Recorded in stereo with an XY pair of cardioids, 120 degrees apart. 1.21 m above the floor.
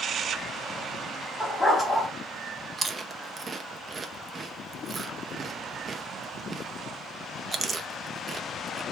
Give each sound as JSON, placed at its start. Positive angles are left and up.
{"t": 1.4, "sound": "a dog barking", "azimuth_deg": 15, "distance_m": 3.0}
{"t": 2.8, "sound": "chewing", "azimuth_deg": -30, "distance_m": 0.8}